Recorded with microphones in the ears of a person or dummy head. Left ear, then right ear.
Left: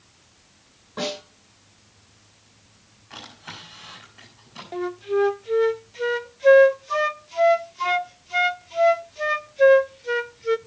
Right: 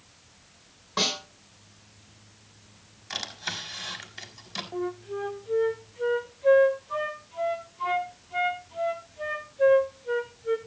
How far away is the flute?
About 0.6 m.